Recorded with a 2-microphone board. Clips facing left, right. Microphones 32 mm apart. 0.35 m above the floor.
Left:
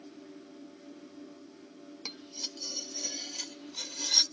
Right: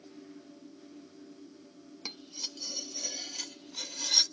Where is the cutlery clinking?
Centre (ahead or behind), 0.5 m.